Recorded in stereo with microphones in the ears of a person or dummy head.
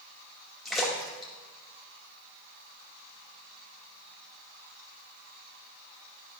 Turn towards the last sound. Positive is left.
turn(degrees=5)  # may be behind; listen again after turning